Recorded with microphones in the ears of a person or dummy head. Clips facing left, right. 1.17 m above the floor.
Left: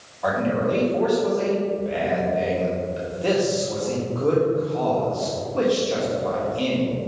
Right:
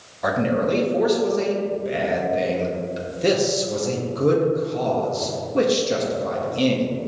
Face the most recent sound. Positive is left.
turn(degrees=-25)  # may be behind; listen again after turning